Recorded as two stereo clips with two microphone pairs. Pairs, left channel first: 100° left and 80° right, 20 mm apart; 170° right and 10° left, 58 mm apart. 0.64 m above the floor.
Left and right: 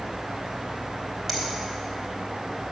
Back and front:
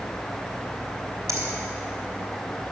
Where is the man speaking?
No man speaking in this recording.